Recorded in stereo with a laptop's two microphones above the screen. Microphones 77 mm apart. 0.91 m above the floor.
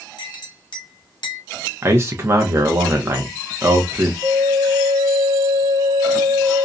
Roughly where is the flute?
Right.